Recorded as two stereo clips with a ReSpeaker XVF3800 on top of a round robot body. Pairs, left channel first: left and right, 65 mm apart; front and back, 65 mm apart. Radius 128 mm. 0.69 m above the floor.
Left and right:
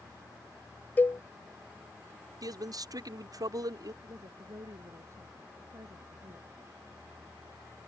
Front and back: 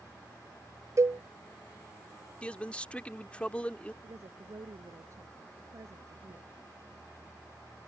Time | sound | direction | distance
1.0 | a cowbell | 150° left | ?
2.4 | a man speaking | 70° right | ?
4.0 | a woman speaking | 135° right | ?